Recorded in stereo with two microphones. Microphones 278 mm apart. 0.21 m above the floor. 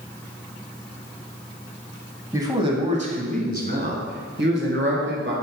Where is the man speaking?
10° right (ahead or behind), 1.0 m; by 5.3 s 45° right (ahead or behind), 2.5 m.